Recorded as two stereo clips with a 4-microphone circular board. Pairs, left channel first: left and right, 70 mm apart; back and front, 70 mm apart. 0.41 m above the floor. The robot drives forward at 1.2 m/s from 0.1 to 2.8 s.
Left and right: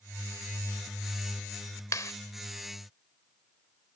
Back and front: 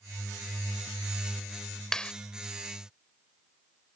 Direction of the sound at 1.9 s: 100° left.